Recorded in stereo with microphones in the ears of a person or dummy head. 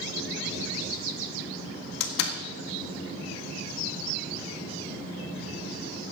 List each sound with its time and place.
2.0 s a door slam: 75° left (ahead or behind), 1.6 m